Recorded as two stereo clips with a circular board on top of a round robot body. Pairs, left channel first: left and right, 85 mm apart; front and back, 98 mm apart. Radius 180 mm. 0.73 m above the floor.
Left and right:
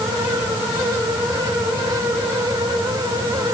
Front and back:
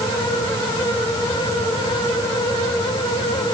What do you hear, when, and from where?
Only background noise.